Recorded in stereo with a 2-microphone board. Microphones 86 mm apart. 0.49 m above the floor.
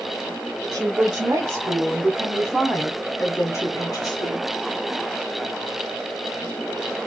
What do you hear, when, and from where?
0.7 s a woman speaking: 50° right (ahead or behind), 1.2 m; by 4.5 s 50° left (ahead or behind), 1.1 m